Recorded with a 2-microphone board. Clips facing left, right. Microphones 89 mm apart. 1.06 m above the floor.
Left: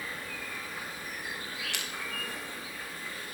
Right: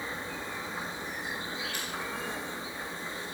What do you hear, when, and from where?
0.0 s an insect: 25° right (ahead or behind), 1.1 m
1.7 s crushing: 75° left (ahead or behind), 1.8 m